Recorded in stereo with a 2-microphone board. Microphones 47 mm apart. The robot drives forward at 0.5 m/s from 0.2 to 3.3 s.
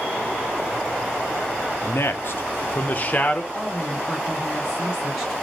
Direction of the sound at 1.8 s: 65° left (ahead or behind).